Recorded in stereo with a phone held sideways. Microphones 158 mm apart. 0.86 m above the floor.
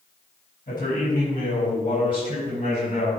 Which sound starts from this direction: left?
A man speaking, at 0.7 s.